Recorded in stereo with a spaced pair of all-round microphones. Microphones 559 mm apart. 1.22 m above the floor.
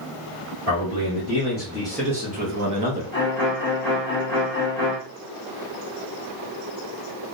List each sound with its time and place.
0.7 s a man speaking: 35° left (ahead or behind), 1.3 m; by 3.0 s 45° right (ahead or behind), 0.8 m
3.1 s a violin: 55° left (ahead or behind), 1.0 m